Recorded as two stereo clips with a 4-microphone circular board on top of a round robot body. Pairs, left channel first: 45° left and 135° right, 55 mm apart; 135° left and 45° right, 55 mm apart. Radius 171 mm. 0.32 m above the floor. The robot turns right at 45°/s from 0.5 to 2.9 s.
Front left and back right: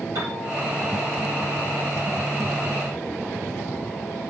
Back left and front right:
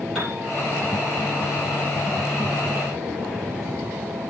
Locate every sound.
0.1 s a piano: 140° right, 7 m